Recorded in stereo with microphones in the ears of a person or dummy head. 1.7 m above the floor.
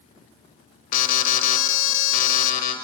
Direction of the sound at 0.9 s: 50° left (ahead or behind).